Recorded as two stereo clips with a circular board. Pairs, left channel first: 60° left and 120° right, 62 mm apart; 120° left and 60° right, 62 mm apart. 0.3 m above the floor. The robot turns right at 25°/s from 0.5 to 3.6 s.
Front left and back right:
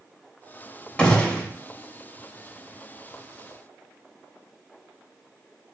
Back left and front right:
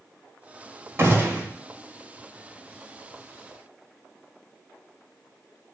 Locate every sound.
1.0 s a gunshot: 15° right, 0.6 m; by 1.5 s straight ahead, 0.6 m